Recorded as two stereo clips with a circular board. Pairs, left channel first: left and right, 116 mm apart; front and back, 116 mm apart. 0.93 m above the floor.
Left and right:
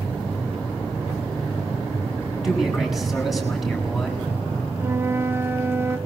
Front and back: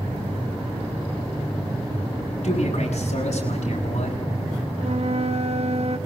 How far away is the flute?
About 1.4 m.